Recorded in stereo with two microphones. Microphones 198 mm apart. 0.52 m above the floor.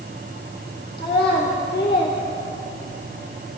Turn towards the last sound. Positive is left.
turn(degrees=30)  # may be behind; listen again after turning